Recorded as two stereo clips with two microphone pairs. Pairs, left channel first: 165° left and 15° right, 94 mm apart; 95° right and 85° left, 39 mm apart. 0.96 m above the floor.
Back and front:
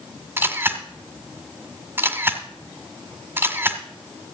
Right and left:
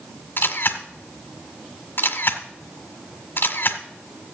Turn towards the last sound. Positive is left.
turn(degrees=-80)